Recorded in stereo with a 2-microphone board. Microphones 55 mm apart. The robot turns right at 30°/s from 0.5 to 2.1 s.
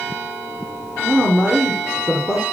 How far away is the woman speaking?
About 2.5 m.